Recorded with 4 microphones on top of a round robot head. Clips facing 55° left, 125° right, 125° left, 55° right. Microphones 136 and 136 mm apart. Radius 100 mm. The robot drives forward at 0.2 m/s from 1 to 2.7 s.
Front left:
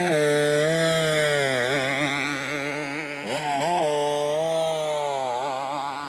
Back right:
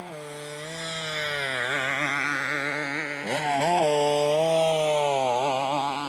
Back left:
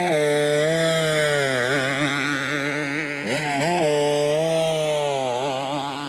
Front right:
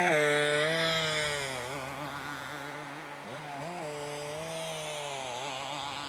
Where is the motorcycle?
65° left; by 6.1 s 160° left.